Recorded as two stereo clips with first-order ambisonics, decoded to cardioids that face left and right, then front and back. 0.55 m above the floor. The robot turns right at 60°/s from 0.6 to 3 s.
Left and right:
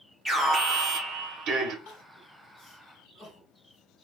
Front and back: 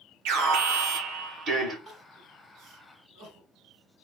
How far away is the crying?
About 2 m.